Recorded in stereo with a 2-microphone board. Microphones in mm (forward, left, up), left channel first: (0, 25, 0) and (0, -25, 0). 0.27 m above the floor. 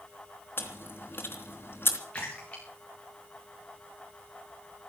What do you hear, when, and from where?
0.6 s chewing: 50° left (ahead or behind), 3 m
2.1 s a splash: 25° left (ahead or behind), 7.5 m